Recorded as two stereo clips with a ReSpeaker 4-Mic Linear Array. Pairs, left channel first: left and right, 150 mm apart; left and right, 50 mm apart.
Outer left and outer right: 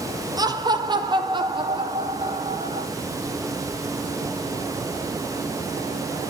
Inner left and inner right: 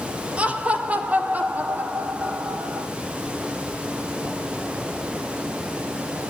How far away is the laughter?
About 2.5 m.